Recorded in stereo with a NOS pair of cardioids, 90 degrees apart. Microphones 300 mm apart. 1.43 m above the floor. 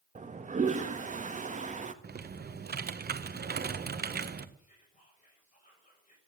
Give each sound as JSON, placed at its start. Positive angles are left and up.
{"t": 0.1, "sound": "a toilet flushing", "azimuth_deg": -25, "distance_m": 1.6}
{"t": 2.0, "sound": "typing on a keyboard", "azimuth_deg": -30, "distance_m": 1.4}
{"t": 4.6, "sound": "whispering", "azimuth_deg": 25, "distance_m": 6.5}